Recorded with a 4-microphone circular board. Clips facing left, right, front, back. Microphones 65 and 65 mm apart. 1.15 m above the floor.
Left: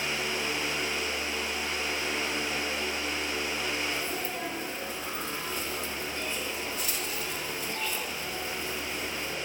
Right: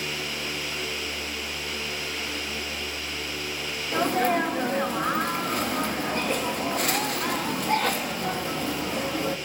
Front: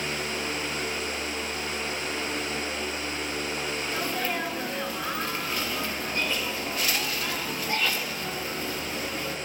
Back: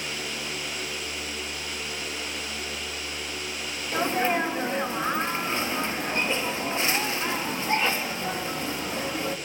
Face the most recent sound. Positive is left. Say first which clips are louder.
# right 11 dB, back 8 dB
turn(degrees=-115)